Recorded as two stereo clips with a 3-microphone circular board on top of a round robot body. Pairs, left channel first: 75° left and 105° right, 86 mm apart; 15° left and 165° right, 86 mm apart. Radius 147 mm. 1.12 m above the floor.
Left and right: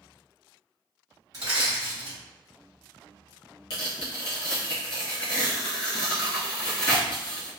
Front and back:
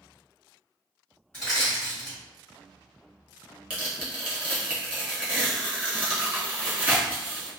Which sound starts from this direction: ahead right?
Crushing, at 1.3 s.